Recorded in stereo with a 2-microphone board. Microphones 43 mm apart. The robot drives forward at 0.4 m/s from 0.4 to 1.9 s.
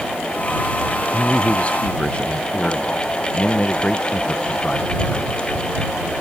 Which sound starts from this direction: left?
A man speaking, at 1.1 s.